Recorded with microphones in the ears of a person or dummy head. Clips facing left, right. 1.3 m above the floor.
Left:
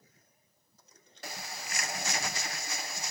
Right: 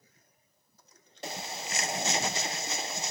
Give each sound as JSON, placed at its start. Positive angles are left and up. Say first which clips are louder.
{"t": 1.2, "sound": "a bird", "louder": "right 5 dB", "side_deg": -25, "distance_m": 0.5}